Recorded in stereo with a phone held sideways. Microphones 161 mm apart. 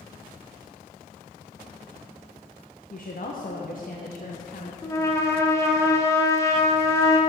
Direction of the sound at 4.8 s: 20° left (ahead or behind).